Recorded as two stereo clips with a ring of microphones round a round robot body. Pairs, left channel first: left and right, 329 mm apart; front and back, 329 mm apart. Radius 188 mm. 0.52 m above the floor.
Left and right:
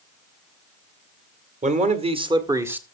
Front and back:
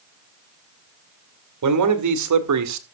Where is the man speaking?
155° right, 2.0 m; by 2.8 s 175° right, 1.5 m.